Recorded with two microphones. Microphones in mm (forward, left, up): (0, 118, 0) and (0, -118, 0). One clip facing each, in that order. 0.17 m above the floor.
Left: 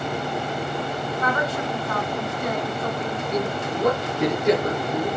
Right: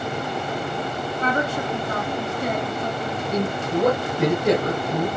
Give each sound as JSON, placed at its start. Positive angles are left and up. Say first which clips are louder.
{"t": 1.2, "sound": "a woman speaking", "louder": "right 2 dB", "side_deg": -30, "distance_m": 1.4}
{"t": 3.3, "sound": "a man speaking", "louder": "right 3 dB", "side_deg": -35, "distance_m": 2.5}